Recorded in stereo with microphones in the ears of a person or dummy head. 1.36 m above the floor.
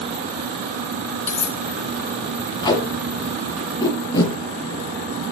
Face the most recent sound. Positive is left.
turn(degrees=25)  # may be behind; listen again after turning